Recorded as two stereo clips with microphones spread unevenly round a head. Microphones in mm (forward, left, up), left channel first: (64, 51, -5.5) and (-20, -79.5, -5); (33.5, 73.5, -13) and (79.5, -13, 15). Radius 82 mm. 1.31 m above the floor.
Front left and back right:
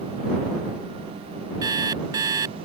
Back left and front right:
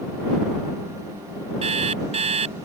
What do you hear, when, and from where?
1.6 s an alarm clock: 55° right